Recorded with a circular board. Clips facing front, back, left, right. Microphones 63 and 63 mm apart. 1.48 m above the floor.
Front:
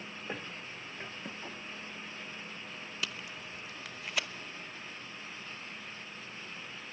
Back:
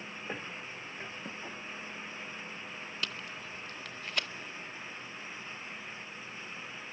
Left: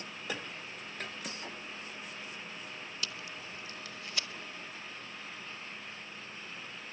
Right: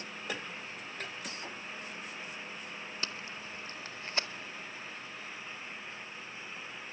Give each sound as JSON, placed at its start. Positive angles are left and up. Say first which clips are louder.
{"t": 3.0, "sound": "tape being pulled", "louder": "even, right 1 dB", "azimuth_deg": -80, "distance_m": 0.8}